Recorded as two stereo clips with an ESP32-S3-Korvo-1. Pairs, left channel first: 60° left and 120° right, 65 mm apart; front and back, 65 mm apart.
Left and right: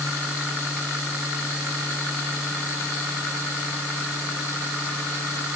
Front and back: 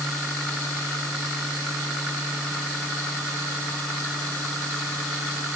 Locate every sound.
Only background noise.